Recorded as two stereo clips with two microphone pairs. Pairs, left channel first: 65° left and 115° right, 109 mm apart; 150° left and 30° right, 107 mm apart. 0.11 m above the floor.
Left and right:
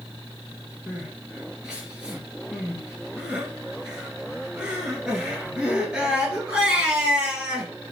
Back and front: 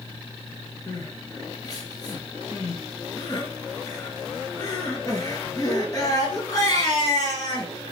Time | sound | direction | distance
0.9 | crying | 170° left | 1.0 m